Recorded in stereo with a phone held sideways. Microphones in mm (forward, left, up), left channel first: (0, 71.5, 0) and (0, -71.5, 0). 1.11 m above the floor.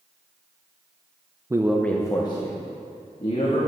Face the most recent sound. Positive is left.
turn(degrees=50)  # may be behind; listen again after turning